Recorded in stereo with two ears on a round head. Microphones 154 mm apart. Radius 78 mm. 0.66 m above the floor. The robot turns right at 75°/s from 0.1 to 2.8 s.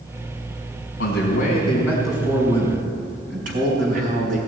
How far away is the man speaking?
About 5 m.